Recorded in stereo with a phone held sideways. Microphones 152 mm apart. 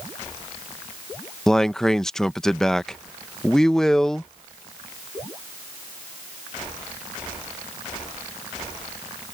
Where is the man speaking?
5° left (ahead or behind).